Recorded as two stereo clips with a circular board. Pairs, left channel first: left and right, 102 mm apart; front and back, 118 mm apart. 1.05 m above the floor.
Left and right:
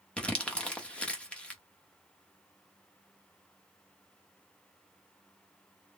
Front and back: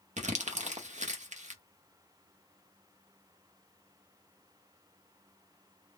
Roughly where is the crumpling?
Behind.